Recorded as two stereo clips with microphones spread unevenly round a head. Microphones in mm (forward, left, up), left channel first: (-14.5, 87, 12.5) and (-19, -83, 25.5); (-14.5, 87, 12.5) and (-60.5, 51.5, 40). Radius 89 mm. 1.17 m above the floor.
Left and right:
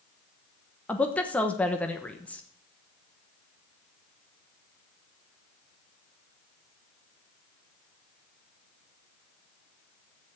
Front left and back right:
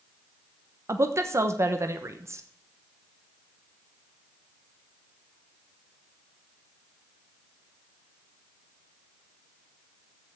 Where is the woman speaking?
170° left, 1.2 m.